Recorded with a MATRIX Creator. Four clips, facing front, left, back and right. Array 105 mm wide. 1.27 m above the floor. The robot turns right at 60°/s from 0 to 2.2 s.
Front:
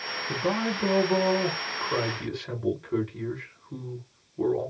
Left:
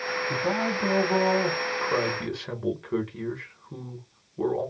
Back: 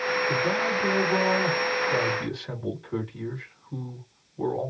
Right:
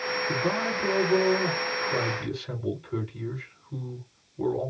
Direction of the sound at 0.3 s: 40° right.